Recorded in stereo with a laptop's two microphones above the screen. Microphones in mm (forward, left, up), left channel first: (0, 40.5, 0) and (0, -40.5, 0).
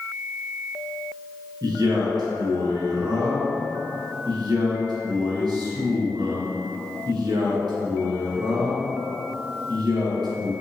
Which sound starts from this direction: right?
A man speaking, at 1.6 s.